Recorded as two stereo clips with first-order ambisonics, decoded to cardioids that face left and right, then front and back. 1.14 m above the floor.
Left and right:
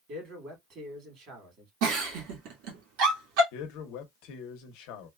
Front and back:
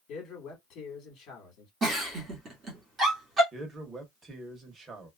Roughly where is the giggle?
Right.